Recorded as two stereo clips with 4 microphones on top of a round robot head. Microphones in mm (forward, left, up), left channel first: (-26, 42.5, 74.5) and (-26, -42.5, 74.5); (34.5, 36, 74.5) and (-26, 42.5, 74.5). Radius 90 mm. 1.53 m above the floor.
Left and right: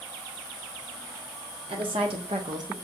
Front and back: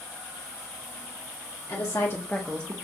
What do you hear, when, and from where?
1.7 s a woman speaking: 55° right, 1.0 m; by 2.7 s 140° right, 0.5 m